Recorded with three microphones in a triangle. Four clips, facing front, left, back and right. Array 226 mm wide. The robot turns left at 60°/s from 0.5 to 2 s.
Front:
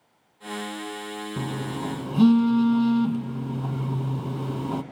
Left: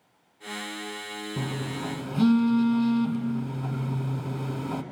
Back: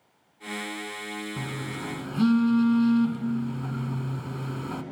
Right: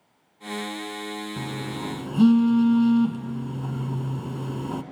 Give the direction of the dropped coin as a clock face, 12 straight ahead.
No dropped coin in this recording.